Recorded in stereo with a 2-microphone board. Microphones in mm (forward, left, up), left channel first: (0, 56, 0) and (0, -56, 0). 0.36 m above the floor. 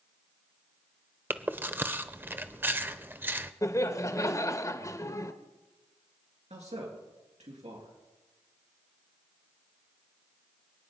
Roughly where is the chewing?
Centre.